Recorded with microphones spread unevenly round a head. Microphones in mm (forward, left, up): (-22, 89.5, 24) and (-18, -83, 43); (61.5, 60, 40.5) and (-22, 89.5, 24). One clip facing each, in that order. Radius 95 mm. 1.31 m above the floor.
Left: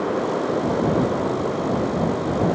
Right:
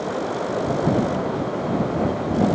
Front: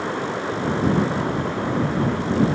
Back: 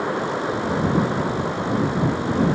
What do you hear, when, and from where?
Only background noise.